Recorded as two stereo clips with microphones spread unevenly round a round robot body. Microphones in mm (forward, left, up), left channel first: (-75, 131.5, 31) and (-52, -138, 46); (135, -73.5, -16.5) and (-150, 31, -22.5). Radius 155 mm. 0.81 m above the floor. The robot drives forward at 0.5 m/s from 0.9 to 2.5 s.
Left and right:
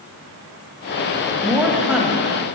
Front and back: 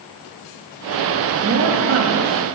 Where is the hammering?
I don't hear hammering.